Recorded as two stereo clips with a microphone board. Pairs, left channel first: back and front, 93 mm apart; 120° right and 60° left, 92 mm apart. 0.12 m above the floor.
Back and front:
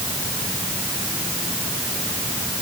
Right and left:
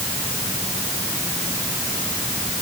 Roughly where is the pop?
I don't hear a pop.